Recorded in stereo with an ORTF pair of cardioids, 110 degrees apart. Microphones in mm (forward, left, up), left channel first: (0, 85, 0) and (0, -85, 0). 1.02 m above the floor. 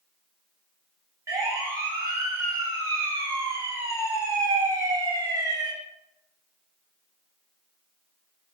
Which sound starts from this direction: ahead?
A siren, at 1.3 s.